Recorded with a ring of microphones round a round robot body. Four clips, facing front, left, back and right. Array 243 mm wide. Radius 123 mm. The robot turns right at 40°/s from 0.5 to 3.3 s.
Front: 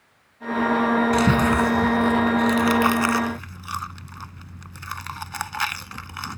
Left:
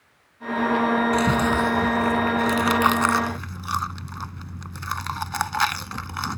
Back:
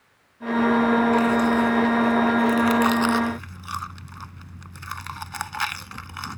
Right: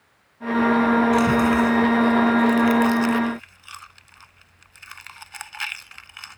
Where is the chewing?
Straight ahead; by 6.4 s 90° left.